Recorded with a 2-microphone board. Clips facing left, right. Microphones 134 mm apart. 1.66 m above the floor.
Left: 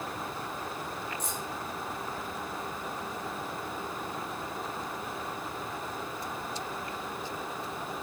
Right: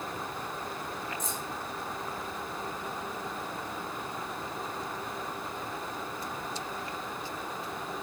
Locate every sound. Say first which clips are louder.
1.2 s keys jangling: even; 65° left (ahead or behind), 2.0 m